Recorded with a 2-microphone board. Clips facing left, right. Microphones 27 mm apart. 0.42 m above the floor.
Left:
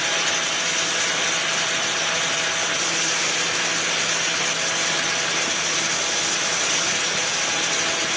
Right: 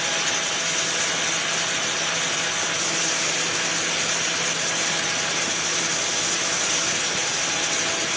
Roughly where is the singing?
No singing in this recording.